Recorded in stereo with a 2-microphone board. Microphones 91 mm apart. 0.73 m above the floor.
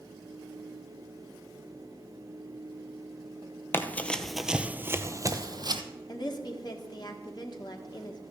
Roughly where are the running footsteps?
Left.